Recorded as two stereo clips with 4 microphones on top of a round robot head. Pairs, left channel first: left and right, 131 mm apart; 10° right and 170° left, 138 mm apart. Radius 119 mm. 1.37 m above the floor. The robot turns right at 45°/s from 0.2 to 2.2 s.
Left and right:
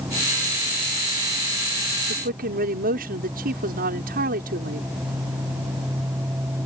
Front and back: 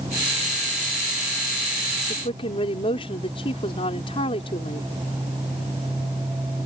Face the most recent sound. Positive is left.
turn(degrees=-70)